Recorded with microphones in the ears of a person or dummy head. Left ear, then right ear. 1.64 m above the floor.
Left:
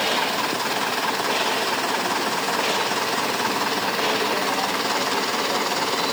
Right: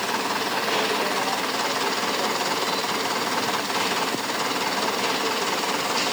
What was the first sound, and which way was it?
Only background noise.